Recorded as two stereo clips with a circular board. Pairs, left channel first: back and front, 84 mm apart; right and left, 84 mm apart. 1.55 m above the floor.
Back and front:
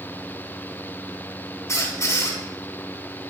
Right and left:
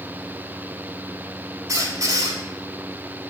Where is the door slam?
I don't hear a door slam.